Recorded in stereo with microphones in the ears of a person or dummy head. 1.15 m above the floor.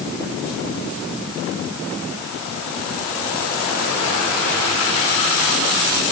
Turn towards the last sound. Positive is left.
No sound to turn to.